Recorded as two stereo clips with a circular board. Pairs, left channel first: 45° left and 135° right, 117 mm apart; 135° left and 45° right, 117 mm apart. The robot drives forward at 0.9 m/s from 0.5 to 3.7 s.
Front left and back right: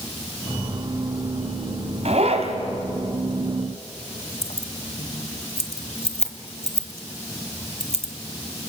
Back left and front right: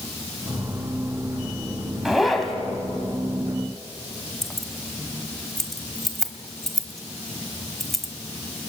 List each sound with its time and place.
2.0 s a zipper: 130° right, 2.5 m; by 2.5 s 140° right, 3 m
4.4 s keys jangling: 45° left, 1.7 m